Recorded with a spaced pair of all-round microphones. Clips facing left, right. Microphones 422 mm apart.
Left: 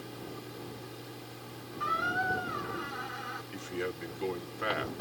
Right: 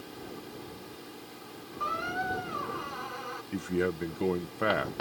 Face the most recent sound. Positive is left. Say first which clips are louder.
# right 7 dB
turn(degrees=-70)  # may be behind; listen again after turning